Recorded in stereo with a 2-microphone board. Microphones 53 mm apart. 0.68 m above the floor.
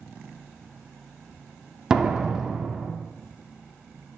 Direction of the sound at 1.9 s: 15° right (ahead or behind).